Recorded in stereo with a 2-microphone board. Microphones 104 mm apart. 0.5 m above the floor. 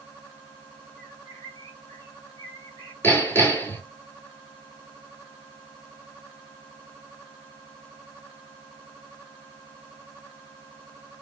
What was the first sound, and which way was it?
A bird, 30° left (ahead or behind).